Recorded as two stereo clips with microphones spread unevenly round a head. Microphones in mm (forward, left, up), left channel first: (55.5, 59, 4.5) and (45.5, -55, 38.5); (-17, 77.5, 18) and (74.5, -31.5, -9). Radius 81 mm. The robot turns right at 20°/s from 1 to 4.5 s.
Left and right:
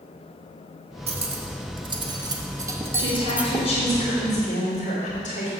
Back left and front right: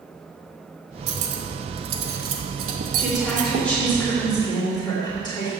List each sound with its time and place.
1.1 s cutlery clinking: 60° right, 0.9 m; by 3.7 s 10° right, 0.9 m
3.0 s a woman speaking: 40° left, 2.5 m; by 5.5 s 70° left, 2.5 m